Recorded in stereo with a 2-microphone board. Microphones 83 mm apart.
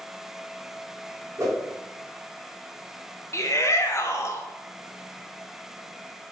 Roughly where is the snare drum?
I don't hear a snare drum.